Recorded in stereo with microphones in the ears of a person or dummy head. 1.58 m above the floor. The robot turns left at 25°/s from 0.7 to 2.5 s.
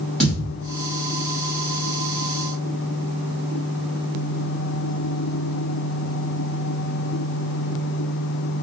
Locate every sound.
0.2 s a thud: 5° left (ahead or behind), 1.9 m